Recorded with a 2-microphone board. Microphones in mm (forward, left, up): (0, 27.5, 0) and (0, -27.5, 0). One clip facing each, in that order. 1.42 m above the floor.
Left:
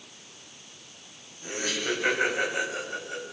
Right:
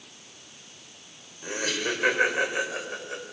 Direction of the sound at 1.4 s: 50° right (ahead or behind).